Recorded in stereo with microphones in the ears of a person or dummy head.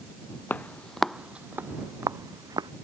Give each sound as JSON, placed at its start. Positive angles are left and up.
{"t": 0.5, "sound": "footsteps", "side_deg": 10}